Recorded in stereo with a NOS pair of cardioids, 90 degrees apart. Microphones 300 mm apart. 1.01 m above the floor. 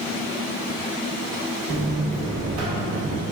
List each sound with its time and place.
1.7 s a buzzer: 65° right, 1.1 m